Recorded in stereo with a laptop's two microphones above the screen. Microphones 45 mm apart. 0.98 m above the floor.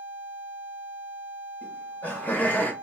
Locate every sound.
1.6 s laughter: 40° left (ahead or behind), 1.4 m; by 2.7 s 35° left (ahead or behind), 0.9 m